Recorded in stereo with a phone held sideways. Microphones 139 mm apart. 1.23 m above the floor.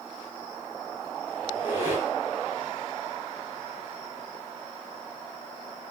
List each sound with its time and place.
1.4 s a squeak: 20° right (ahead or behind), 1.6 m